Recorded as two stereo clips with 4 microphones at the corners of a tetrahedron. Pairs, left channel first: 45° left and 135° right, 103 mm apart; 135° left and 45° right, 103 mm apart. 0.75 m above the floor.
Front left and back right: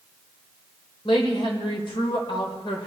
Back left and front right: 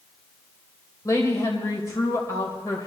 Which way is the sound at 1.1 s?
75° left.